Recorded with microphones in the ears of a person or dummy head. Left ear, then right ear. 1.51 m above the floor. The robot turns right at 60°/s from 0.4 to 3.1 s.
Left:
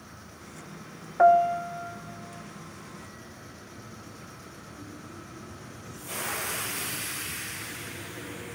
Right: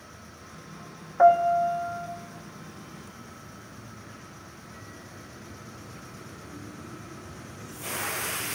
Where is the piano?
165° left, 0.9 m; by 2.1 s 145° right, 0.9 m.